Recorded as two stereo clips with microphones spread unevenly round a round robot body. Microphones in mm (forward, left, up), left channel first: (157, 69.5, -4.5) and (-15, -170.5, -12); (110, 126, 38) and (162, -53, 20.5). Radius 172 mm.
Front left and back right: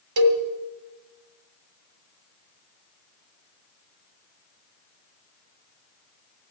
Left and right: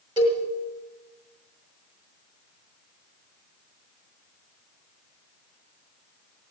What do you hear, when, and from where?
0.2 s a cowbell: 150° right, 1.9 m